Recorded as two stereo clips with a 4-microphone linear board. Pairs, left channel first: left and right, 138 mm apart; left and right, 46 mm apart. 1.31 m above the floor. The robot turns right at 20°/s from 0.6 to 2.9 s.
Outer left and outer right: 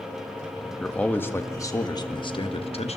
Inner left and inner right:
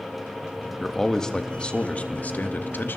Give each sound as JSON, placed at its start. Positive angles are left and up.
{"t": 0.8, "sound": "a man speaking", "azimuth_deg": 5, "distance_m": 1.6}